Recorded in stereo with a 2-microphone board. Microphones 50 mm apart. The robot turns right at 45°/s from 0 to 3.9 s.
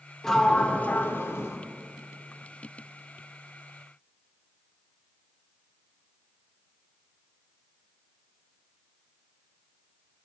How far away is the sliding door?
About 0.6 m.